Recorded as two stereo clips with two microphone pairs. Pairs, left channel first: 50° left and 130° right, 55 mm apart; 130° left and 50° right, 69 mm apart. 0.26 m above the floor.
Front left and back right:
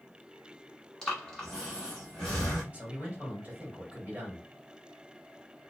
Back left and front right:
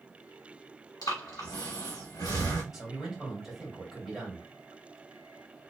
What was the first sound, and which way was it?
Breathing, 130° left.